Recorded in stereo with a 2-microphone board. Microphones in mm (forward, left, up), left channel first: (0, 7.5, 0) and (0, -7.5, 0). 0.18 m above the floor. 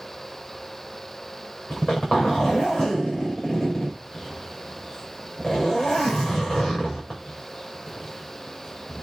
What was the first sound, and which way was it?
A zipper, 85° left.